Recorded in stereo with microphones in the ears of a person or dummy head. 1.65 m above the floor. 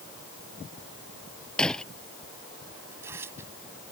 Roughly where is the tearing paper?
Centre.